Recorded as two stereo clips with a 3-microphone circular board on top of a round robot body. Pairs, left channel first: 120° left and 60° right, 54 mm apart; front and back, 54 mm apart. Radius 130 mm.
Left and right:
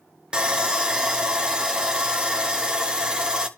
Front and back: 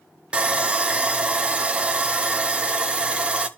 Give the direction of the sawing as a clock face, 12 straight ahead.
4 o'clock.